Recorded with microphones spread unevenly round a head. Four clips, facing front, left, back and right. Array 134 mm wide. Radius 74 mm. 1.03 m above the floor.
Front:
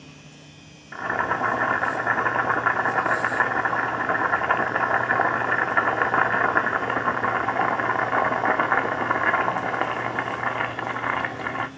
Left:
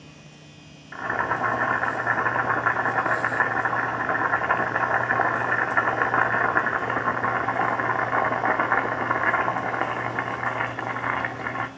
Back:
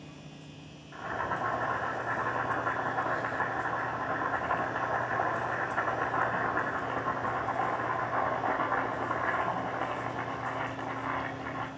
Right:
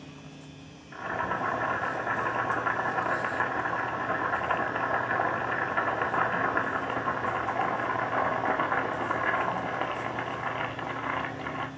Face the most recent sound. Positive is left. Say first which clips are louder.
# left 5 dB, front 8 dB
turn(degrees=25)